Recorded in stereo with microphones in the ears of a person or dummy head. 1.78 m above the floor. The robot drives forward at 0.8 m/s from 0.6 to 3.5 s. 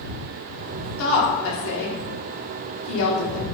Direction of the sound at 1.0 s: 75° left (ahead or behind).